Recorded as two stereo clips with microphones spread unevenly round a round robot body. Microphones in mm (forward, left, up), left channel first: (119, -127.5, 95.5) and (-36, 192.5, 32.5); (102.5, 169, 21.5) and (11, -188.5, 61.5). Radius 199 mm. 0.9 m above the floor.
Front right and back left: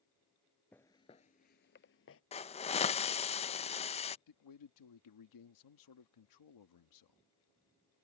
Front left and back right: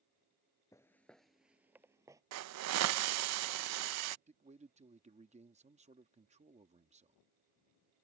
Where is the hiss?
140° right.